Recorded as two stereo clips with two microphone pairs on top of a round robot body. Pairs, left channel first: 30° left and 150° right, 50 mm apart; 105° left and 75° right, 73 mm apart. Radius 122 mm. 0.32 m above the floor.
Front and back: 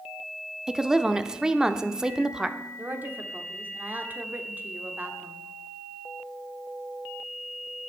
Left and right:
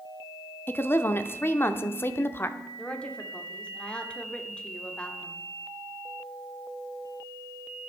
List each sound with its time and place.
0.7 s a woman speaking: 120° left, 0.9 m
2.8 s a woman speaking: 175° left, 1.6 m